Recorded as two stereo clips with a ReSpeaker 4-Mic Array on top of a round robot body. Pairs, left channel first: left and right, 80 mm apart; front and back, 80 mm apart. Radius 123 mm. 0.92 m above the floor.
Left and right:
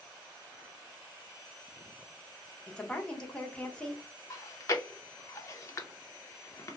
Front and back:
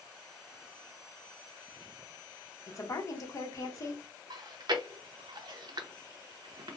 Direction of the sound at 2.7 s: 20° left.